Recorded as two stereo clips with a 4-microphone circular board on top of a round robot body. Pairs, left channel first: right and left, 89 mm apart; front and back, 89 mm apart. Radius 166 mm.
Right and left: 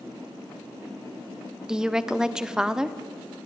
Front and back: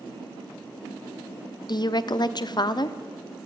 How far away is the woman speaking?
About 1.1 m.